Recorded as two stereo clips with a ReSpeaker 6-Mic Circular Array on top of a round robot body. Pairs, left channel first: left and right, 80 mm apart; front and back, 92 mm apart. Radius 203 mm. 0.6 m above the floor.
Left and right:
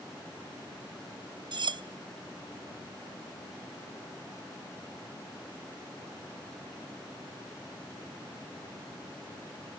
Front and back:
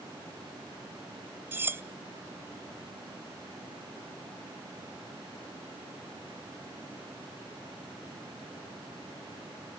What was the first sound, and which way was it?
Cutlery clinking, 110° right.